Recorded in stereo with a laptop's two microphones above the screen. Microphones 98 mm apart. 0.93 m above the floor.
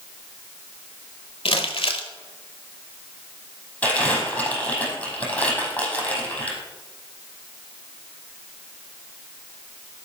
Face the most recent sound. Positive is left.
turn(degrees=15)  # may be behind; listen again after turning